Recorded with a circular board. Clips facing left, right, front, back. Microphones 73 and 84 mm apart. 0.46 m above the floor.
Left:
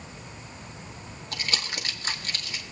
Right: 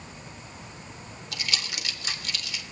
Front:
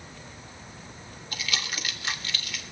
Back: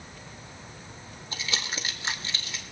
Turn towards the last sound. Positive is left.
turn(degrees=125)